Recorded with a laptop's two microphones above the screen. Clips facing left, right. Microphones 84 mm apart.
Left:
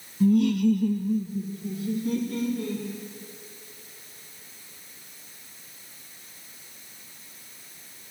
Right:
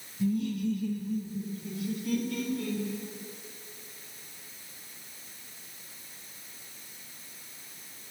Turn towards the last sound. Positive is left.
turn(degrees=25)  # may be behind; listen again after turning